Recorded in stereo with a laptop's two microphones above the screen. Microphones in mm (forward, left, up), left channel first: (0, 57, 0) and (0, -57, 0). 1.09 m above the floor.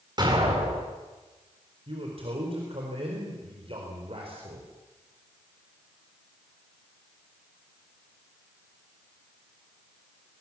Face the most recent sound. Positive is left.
turn(degrees=-55)  # may be behind; listen again after turning